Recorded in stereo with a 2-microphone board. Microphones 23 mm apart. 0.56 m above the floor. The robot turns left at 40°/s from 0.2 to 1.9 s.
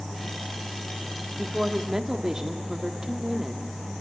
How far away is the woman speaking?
About 1.4 m.